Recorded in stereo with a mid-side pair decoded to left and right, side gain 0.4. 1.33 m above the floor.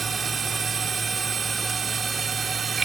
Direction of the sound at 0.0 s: 45° right.